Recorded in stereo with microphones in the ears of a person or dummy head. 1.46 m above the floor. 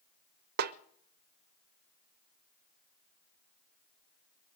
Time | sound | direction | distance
0.6 | a snare drum | 60° right (ahead or behind) | 0.6 m